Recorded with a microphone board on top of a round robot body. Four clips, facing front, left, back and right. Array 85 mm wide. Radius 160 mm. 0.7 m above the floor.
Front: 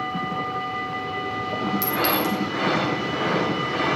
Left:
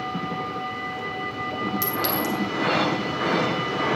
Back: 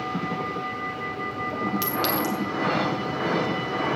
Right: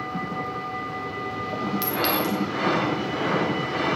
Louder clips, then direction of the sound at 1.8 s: Right 3 dB, front 4 dB; 155° right.